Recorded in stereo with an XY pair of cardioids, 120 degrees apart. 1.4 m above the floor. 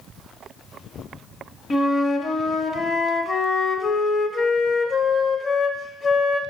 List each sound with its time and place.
1.7 s a flute: 40° left, 0.9 m